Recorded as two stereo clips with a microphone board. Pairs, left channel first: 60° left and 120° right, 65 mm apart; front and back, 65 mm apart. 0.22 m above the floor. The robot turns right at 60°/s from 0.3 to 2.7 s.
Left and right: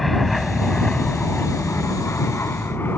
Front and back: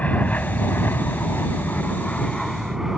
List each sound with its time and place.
0.0 s an aircraft: 25° right; by 3.0 s 95° left